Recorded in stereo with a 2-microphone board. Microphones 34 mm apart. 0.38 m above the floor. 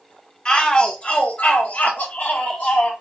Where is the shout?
20° left (ahead or behind), 1.2 m; by 2.9 s 45° left (ahead or behind), 1.3 m.